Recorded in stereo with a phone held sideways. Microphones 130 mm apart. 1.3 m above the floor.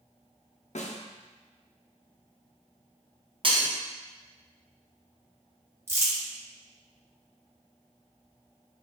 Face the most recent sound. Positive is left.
turn(degrees=-20)  # may be behind; listen again after turning